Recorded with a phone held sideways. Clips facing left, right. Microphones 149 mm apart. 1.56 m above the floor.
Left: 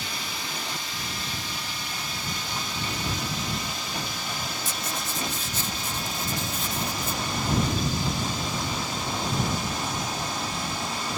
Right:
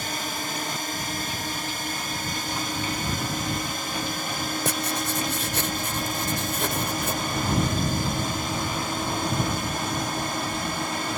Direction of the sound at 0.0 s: 50° right (ahead or behind).